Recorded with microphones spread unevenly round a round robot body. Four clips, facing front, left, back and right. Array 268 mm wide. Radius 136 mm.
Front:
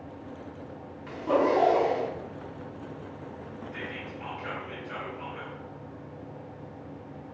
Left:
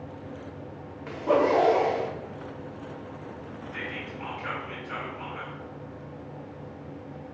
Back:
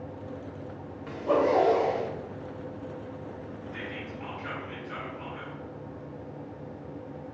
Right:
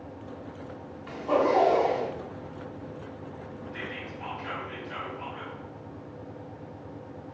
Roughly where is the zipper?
Left.